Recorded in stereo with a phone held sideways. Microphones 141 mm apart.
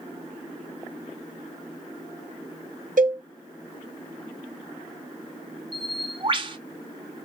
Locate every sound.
3.0 s a cowbell: 70° right (ahead or behind), 0.7 m
5.7 s a bird: 35° right (ahead or behind), 0.5 m